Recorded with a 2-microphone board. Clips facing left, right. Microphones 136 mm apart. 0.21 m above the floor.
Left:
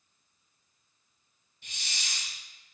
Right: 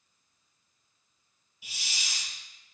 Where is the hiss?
10° right (ahead or behind), 1.2 m.